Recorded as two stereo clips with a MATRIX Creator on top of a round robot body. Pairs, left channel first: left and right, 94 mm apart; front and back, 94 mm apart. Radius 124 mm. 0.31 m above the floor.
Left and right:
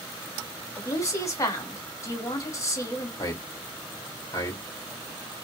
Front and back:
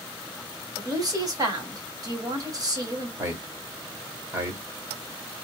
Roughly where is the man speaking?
Behind left.